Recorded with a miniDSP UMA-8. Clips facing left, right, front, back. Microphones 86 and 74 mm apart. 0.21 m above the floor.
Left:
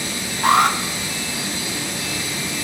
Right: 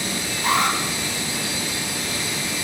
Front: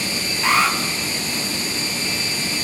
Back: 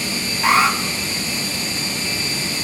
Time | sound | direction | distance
0.4 | an alarm | 105° left | 3.5 m